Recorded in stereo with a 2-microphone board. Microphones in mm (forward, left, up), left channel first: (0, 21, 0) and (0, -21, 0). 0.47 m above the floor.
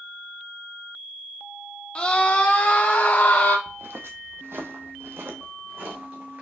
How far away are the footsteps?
About 0.9 m.